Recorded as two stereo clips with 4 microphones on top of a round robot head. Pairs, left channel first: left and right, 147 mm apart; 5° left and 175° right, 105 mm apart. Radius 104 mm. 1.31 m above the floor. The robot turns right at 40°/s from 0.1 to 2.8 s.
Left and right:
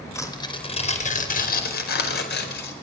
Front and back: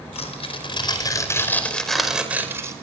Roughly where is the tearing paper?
Ahead.